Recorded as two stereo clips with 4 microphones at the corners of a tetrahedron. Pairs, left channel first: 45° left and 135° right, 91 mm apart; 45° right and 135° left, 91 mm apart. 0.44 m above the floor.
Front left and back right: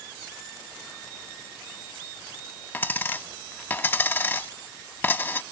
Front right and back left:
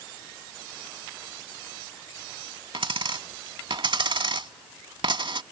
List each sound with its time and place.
2.7 s a dropped coin: 110° left